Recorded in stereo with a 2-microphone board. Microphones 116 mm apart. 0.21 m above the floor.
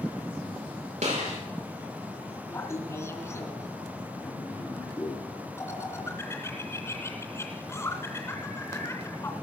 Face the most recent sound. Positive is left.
turn(degrees=25)  # may be behind; listen again after turning